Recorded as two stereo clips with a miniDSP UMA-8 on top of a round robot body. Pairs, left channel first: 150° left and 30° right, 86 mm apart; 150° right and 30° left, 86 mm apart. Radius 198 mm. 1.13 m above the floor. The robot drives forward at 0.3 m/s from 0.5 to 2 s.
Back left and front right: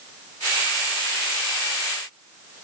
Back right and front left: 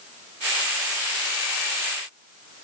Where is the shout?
I don't hear a shout.